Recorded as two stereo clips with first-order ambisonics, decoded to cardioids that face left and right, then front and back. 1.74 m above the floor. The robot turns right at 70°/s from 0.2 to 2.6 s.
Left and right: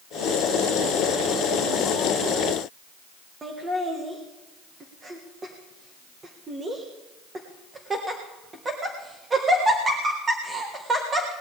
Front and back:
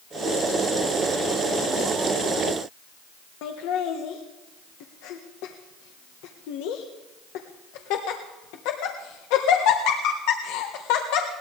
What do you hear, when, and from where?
3.4 s laughter: 15° right, 1.6 m